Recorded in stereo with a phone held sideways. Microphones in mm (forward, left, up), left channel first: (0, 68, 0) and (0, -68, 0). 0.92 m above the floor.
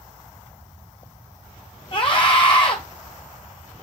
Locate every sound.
1.9 s a scream: 40° left (ahead or behind), 0.9 m